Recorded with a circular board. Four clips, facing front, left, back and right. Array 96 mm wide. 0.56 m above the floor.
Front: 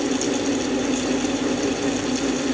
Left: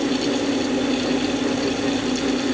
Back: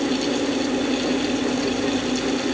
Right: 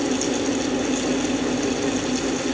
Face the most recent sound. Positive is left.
No sound to turn to.